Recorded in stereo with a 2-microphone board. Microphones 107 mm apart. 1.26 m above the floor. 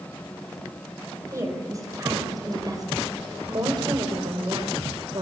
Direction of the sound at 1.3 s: 30° right (ahead or behind).